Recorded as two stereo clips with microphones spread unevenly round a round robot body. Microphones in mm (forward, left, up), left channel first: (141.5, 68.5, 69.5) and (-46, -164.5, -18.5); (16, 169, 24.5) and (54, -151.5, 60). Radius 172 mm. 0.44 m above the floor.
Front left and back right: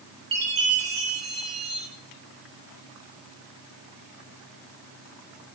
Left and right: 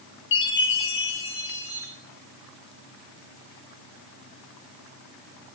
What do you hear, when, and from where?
0.3 s a chime: 155° left, 5.5 m